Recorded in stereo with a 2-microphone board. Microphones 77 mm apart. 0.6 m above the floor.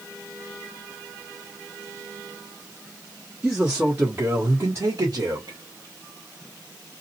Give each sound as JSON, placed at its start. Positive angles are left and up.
{"t": 3.4, "sound": "a man speaking", "side_deg": -10, "distance_m": 1.1}